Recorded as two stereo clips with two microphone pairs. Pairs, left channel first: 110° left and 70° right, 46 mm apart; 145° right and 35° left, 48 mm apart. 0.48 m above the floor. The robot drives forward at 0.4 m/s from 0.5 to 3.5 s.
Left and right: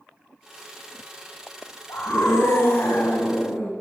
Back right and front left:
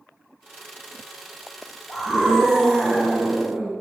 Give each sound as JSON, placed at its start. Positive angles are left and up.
{"t": 1.9, "sound": "a scream", "azimuth_deg": 125, "distance_m": 3.5}